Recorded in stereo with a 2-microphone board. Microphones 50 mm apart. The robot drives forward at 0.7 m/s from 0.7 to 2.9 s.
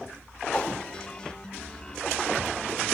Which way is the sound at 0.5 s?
25° left (ahead or behind).